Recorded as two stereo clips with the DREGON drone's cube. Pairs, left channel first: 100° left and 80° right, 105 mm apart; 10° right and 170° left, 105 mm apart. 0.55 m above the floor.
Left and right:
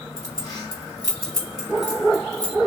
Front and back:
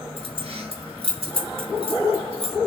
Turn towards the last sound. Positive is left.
turn(degrees=150)